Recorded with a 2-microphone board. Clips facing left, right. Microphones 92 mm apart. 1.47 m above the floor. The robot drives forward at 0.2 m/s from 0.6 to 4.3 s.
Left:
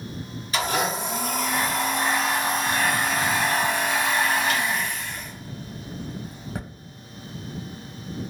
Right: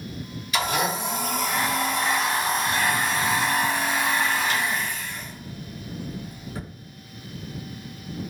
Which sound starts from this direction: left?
A blender, at 0.5 s.